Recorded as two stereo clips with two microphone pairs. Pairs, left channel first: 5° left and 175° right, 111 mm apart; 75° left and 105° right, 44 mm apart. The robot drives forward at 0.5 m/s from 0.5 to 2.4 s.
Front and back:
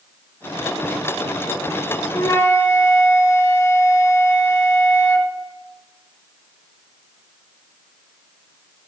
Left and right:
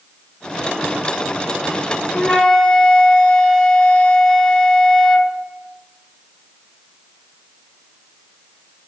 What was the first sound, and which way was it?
A flute, 15° left.